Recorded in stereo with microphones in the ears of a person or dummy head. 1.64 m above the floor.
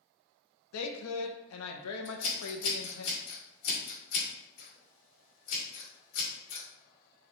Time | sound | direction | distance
0.7 | a woman speaking | 80° left | 0.5 m
2.0 | scissors | 40° left (ahead or behind) | 2 m